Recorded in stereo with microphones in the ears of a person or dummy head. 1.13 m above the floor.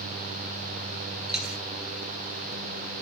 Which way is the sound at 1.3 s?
Centre (ahead or behind).